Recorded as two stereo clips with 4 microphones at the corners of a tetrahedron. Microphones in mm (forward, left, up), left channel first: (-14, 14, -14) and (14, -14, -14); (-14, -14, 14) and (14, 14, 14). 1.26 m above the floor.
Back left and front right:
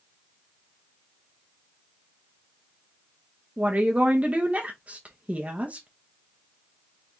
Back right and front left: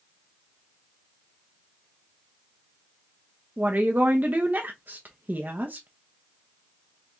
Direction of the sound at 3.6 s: 5° left.